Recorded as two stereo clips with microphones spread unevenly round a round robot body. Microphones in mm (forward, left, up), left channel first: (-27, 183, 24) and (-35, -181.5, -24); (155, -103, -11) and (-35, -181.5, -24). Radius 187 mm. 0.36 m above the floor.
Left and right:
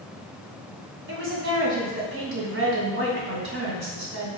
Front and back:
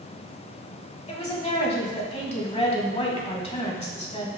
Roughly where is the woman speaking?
Ahead right.